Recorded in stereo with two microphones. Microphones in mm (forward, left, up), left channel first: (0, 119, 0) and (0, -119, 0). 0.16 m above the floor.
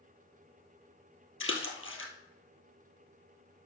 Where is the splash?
60° left (ahead or behind), 1.6 m.